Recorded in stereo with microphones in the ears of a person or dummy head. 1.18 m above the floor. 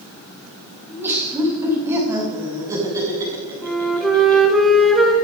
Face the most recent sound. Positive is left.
turn(degrees=0)  # may be behind; listen again after turning